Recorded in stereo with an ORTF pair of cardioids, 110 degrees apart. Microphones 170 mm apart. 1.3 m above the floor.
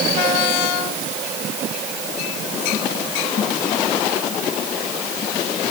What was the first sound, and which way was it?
Only background noise.